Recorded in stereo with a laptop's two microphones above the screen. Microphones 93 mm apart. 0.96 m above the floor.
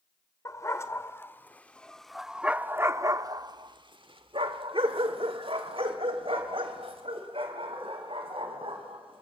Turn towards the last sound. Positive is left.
turn(degrees=-75)  # may be behind; listen again after turning